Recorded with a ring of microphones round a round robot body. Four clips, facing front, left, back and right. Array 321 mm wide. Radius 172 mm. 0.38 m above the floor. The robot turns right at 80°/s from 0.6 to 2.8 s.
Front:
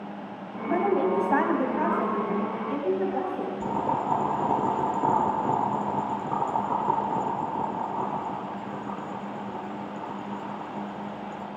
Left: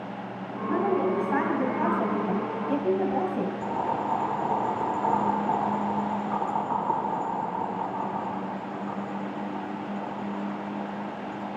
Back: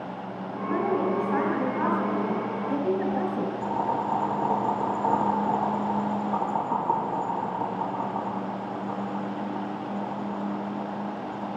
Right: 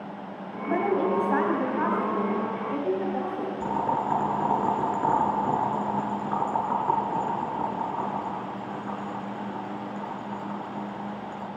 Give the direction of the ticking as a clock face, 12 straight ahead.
No ticking in this recording.